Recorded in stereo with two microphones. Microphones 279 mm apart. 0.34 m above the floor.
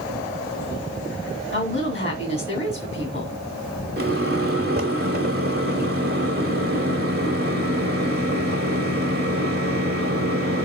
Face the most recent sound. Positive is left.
turn(degrees=-35)  # may be behind; listen again after turning